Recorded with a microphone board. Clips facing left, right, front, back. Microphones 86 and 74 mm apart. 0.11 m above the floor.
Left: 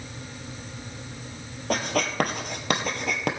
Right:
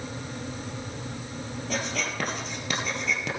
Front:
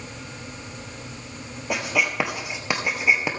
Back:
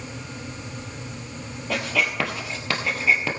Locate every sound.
1.7 s writing: 70° left, 2.0 m